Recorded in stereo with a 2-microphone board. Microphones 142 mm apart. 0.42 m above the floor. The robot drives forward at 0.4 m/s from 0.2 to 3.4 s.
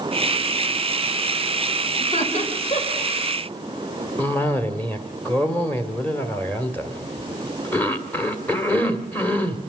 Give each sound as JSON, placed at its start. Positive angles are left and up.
{"t": 2.0, "sound": "laughter", "side_deg": 50, "distance_m": 3.0}
{"t": 4.2, "sound": "a cough", "side_deg": 15, "distance_m": 1.5}